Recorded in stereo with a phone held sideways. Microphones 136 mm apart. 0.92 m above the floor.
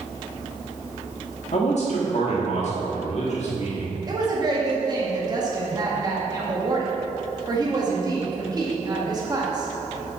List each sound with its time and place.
1.5 s a man speaking: 60° left (ahead or behind), 1.8 m
4.1 s a woman speaking: 30° right (ahead or behind), 1.7 m